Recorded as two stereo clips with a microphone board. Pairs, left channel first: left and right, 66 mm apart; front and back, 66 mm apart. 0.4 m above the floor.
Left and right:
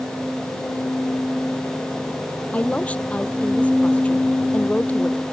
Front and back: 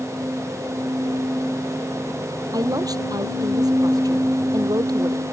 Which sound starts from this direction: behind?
A woman speaking, at 2.5 s.